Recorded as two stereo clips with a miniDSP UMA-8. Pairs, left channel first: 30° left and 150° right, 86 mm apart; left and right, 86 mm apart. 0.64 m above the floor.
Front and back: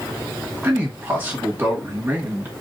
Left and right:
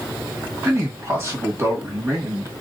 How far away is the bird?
No bird in this recording.